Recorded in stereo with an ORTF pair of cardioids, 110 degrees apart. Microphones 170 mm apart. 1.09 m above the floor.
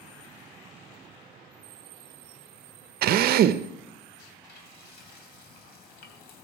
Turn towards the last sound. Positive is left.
turn(degrees=70)